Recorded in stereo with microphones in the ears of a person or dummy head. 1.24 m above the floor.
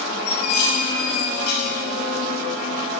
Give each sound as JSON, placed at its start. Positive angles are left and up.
{"t": 0.3, "sound": "dishes clattering", "side_deg": 55, "distance_m": 5.0}